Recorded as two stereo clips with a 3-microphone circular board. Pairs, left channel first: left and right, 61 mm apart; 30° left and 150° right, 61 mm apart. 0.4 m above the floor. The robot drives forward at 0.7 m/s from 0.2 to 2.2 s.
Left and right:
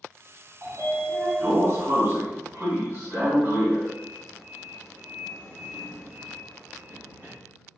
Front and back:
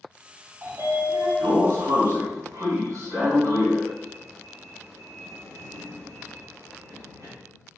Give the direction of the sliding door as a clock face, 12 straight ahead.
4 o'clock.